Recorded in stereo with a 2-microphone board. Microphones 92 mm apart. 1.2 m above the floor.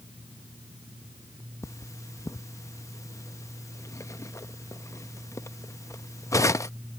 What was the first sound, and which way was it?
Cutlery clinking, 35° left (ahead or behind).